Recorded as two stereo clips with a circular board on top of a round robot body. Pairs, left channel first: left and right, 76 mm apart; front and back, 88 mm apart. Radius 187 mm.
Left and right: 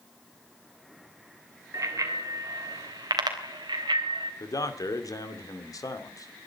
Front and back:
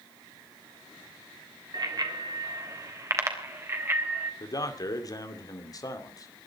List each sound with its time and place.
1.7 s a bicycle bell: 140° right, 3 m; by 4.3 s 115° right, 4 m
4.4 s a man speaking: 50° left, 2.5 m